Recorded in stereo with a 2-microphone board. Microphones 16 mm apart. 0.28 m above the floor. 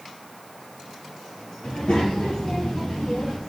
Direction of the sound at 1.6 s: 80° left.